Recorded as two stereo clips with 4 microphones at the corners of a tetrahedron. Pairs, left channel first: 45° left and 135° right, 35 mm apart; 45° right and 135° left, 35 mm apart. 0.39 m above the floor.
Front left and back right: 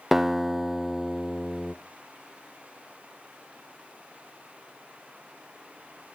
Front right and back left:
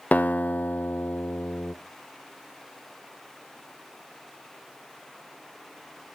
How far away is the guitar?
About 0.7 m.